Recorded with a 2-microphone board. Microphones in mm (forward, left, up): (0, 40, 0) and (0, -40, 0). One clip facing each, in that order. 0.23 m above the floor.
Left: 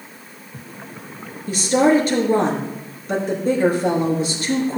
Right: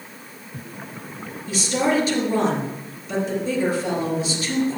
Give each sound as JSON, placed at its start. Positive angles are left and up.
{"t": 1.5, "sound": "a woman speaking", "side_deg": 50, "distance_m": 3.5}